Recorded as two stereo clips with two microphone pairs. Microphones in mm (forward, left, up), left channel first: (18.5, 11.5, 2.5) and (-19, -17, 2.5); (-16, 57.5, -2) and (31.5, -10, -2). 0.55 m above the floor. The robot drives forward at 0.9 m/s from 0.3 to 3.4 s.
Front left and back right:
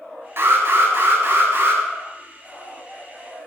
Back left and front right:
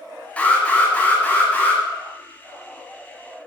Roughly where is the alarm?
Behind.